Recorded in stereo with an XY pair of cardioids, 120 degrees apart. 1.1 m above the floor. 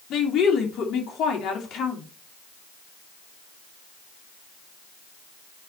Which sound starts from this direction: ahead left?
A woman speaking, at 0.1 s.